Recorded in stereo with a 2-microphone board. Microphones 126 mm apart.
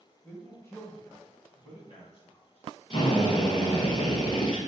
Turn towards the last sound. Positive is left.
turn(degrees=45)  # may be behind; listen again after turning